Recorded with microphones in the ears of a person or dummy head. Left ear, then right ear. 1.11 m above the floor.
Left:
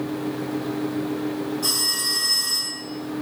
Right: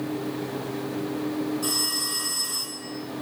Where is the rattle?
No rattle in this recording.